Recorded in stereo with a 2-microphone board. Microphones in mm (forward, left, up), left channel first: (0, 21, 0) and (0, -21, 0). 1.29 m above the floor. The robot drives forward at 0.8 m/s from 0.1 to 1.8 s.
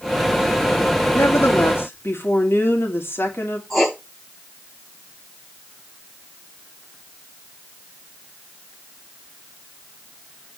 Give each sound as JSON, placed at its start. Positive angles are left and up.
{"t": 1.1, "sound": "a woman speaking", "side_deg": 75, "distance_m": 3.0}
{"t": 3.7, "sound": "writing", "side_deg": 0, "distance_m": 4.5}